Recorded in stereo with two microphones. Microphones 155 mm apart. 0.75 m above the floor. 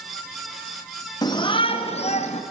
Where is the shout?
25° left (ahead or behind), 1.1 m; by 2.4 s 40° left (ahead or behind), 1.3 m.